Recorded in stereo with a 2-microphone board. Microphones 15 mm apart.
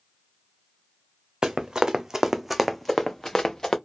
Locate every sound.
1.4 s running footsteps: 65° right (ahead or behind), 0.7 m; by 3.8 s 40° left (ahead or behind), 0.9 m